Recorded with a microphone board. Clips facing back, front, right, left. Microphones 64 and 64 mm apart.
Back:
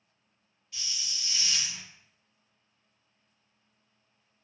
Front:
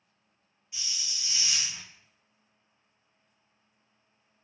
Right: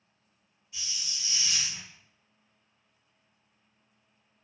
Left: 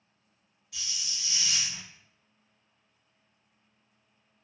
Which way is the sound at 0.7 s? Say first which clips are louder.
Even, even; 75° left.